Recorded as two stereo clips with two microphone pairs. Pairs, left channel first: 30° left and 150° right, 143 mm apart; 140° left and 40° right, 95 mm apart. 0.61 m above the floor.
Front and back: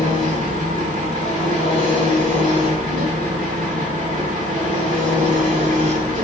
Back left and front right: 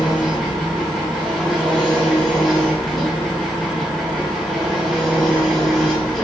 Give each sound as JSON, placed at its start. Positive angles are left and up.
{"t": 0.0, "sound": "an engine running", "azimuth_deg": -135, "distance_m": 1.3}